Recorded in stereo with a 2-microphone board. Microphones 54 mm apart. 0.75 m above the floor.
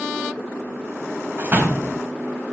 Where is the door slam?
40° right (ahead or behind), 3.5 m.